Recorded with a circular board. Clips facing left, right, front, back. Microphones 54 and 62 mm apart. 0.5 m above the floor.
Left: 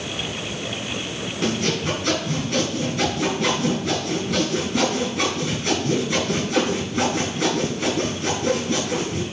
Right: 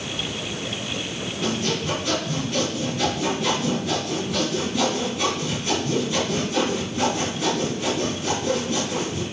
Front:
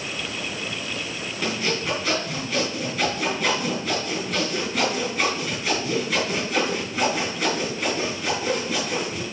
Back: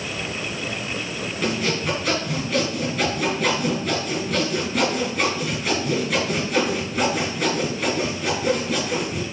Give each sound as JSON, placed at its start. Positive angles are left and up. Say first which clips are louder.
{"t": 1.4, "sound": "sawing", "louder": "left 2 dB, back 2 dB", "azimuth_deg": 95, "distance_m": 3.5}